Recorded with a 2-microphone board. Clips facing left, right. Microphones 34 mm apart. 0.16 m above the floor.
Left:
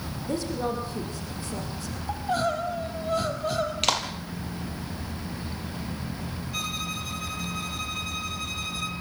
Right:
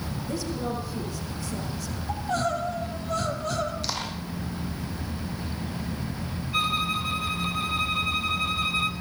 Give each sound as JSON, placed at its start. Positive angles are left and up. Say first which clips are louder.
{"t": 0.2, "sound": "a woman speaking", "louder": "left 3 dB", "side_deg": 40, "distance_m": 7.5}
{"t": 2.1, "sound": "crying", "louder": "left 1 dB", "side_deg": 20, "distance_m": 3.5}
{"t": 3.8, "sound": "a clap", "louder": "left 6 dB", "side_deg": 70, "distance_m": 3.5}
{"t": 6.5, "sound": "a violin", "louder": "right 8 dB", "side_deg": -25, "distance_m": 1.7}